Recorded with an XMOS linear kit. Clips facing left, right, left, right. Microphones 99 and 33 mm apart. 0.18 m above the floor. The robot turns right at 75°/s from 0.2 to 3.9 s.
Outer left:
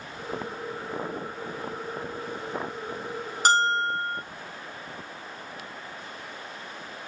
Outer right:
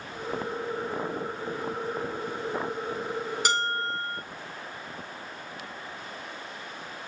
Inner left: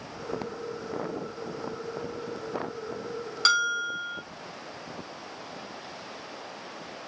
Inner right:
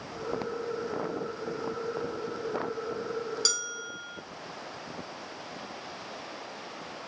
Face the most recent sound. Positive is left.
turn(degrees=155)